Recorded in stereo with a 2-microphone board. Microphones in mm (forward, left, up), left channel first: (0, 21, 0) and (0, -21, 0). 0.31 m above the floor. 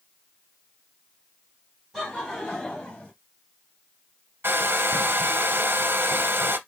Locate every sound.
1.9 s laughter: 5° left (ahead or behind), 2 m; by 3.1 s 20° left (ahead or behind), 2.0 m
4.4 s a hair dryer: 60° right (ahead or behind), 0.9 m